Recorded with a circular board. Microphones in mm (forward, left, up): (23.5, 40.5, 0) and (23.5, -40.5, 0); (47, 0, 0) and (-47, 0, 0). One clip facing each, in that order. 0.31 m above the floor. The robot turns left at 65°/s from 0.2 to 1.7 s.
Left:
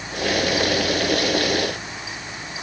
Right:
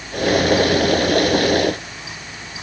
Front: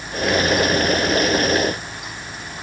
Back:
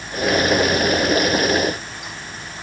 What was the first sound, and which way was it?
Only background noise.